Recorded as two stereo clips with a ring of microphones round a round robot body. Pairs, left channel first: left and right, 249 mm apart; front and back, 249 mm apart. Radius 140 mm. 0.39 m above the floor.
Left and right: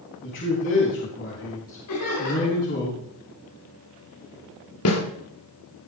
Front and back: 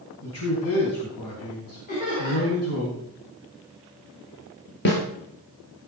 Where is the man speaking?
30° left, 3.5 m.